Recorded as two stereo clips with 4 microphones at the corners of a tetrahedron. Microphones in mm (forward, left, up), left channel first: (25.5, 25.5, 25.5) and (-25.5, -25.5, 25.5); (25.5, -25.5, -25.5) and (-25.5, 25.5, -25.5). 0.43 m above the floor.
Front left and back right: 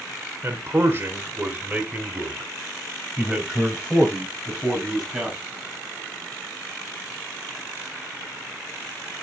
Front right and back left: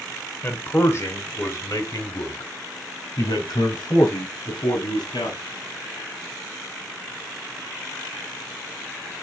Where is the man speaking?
95° right, 1.4 m; by 5.4 s 55° right, 3.5 m.